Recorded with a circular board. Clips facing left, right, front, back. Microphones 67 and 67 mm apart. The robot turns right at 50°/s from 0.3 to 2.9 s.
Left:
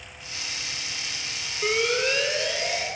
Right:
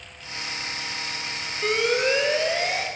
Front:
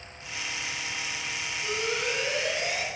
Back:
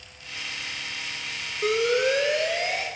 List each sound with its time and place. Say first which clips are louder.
1.6 s an alarm: right 2 dB, back 9 dB; 175° left, 3 m; by 2.9 s 125° right, 3 m